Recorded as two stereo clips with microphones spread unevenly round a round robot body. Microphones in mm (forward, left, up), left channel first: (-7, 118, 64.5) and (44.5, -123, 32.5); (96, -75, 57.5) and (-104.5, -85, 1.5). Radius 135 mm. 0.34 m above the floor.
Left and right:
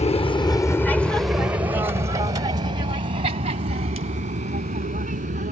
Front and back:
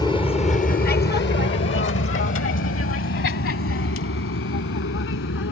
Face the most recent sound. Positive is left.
turn(degrees=-20)